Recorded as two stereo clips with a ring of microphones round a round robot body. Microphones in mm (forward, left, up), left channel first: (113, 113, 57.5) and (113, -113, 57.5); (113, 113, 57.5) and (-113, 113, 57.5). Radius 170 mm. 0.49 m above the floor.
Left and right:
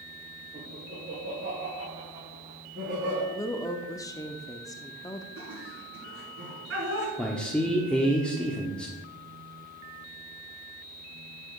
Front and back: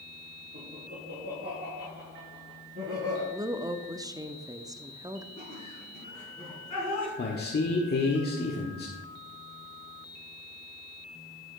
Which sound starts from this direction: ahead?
A man speaking, at 7.2 s.